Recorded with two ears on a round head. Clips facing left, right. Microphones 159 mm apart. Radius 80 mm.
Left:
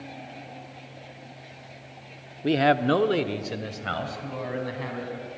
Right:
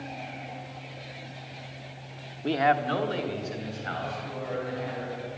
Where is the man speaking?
15° left (ahead or behind), 0.7 m; by 5.3 s 70° left (ahead or behind), 4.5 m.